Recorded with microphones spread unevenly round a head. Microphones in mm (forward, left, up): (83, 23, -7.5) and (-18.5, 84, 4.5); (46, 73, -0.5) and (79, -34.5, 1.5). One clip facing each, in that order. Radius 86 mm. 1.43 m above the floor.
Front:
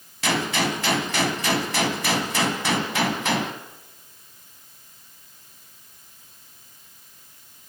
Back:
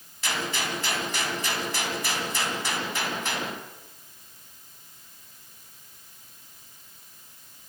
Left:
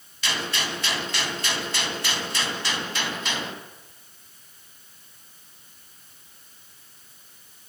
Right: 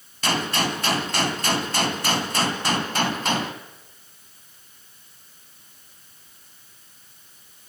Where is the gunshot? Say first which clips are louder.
Front 7 dB, right 6 dB; 40° right, 2 m.